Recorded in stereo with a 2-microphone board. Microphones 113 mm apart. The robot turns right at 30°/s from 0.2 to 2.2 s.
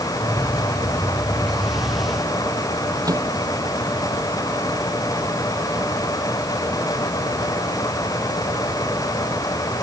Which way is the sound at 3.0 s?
30° right (ahead or behind).